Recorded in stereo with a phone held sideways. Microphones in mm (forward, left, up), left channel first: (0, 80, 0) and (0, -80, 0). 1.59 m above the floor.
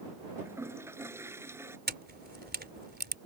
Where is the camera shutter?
75° right (ahead or behind).